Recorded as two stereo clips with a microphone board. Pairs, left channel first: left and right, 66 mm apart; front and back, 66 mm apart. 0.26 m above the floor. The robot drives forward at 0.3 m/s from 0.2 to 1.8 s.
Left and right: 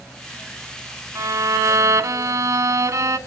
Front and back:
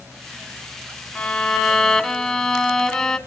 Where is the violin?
70° right, 0.7 m; by 3.2 s 85° right, 0.7 m.